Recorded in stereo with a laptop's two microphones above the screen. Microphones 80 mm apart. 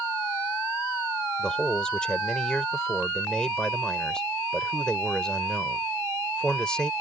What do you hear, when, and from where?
1.4 s a man speaking: 10° left (ahead or behind)